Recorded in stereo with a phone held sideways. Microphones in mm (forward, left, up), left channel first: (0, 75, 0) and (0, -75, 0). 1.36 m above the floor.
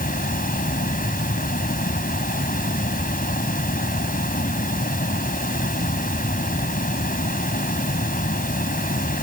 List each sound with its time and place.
0.0 s running water: 70° left (ahead or behind)